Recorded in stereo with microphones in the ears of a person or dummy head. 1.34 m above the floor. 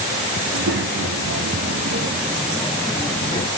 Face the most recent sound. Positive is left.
turn(degrees=30)  # may be behind; listen again after turning